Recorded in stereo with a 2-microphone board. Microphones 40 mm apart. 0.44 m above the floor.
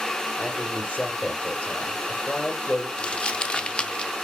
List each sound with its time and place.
0.4 s a man speaking: 40° left (ahead or behind), 1.3 m
3.0 s crumpling: 25° left (ahead or behind), 0.6 m